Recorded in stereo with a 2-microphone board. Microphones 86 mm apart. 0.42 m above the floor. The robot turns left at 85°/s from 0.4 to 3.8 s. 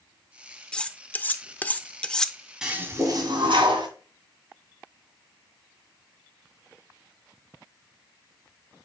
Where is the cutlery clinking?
10° left (ahead or behind), 0.6 m; by 2.5 s centre (ahead or behind), 0.6 m.